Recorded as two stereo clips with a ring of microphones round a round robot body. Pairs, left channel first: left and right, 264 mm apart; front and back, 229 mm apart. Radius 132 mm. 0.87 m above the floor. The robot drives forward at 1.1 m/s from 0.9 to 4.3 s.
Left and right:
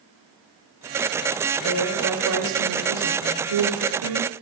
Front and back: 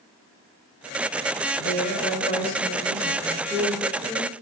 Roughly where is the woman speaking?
Ahead right.